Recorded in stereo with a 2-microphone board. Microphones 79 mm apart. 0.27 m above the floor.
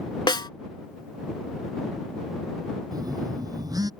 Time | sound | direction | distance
0.3 | a snare drum | 70° left (ahead or behind) | ?
2.9 | a phone buzzing | 50° right (ahead or behind) | ?